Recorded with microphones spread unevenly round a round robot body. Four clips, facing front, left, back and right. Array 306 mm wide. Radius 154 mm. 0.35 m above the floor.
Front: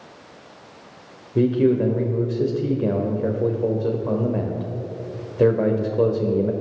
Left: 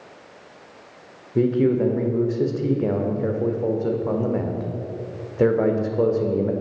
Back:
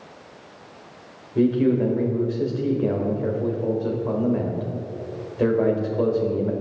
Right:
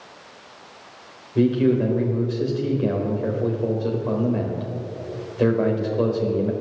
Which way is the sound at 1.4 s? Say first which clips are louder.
Even, front 1 dB; 25° left.